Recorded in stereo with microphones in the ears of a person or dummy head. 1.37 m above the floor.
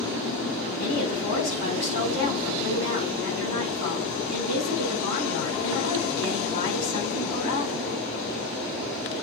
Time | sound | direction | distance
0.8 | a woman speaking | 80° left | 6 m